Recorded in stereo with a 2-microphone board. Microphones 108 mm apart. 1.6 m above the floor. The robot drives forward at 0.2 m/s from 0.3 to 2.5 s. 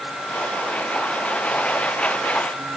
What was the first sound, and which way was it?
Only background noise.